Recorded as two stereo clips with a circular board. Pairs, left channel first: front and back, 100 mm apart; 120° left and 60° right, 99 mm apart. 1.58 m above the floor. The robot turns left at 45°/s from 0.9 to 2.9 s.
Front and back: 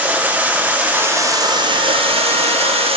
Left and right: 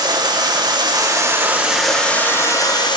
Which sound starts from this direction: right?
Running water, at 0.0 s.